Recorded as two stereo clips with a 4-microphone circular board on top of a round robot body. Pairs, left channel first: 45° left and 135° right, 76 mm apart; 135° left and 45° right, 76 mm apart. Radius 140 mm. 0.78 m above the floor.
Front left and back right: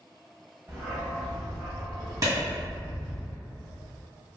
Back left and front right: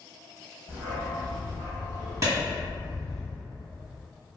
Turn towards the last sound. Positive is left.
turn(degrees=-90)